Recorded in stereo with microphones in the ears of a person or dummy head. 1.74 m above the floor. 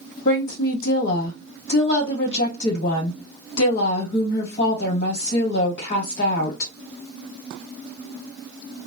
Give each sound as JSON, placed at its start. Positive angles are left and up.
{"t": 0.2, "sound": "a woman speaking", "side_deg": 45, "distance_m": 1.3}